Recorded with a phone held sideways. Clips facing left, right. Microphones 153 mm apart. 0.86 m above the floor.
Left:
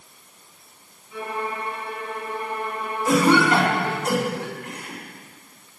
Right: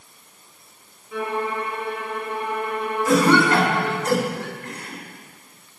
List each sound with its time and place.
1.1 s a violin: 75° right (ahead or behind), 3 m
3.0 s a cough: 10° left (ahead or behind), 8.5 m